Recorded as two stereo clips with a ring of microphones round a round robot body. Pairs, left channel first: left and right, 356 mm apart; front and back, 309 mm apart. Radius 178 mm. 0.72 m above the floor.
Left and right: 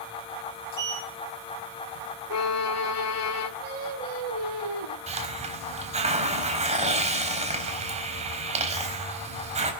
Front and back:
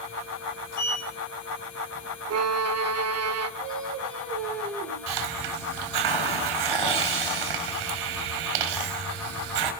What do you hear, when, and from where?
0.7 s a sliding door: 50° right, 5 m
2.3 s a violin: 140° left, 1.4 m
3.6 s singing: 85° right, 4 m
5.1 s a hiss: 165° right, 4 m